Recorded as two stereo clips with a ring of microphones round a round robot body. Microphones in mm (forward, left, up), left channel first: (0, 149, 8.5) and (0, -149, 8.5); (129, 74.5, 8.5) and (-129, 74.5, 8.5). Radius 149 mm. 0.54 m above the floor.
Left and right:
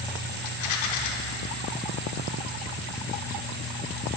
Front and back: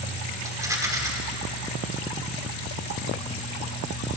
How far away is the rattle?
About 0.9 m.